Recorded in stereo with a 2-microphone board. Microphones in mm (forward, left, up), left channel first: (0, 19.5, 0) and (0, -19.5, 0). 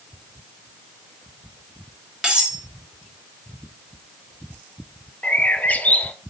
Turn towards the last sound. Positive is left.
turn(degrees=40)  # may be behind; listen again after turning